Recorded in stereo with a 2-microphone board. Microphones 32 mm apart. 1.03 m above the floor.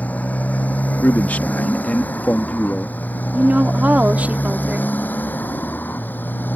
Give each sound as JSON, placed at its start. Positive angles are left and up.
{"t": 0.0, "sound": "a motorcycle", "side_deg": 50}
{"t": 1.0, "sound": "a man speaking", "side_deg": 50}
{"t": 3.3, "sound": "a woman speaking", "side_deg": -50}